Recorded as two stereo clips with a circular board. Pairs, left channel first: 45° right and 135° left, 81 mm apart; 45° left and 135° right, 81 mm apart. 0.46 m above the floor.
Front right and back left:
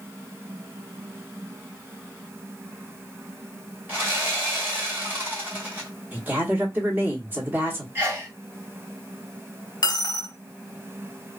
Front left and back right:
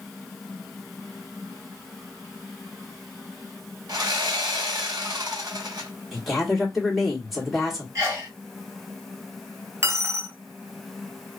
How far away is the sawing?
About 1.8 m.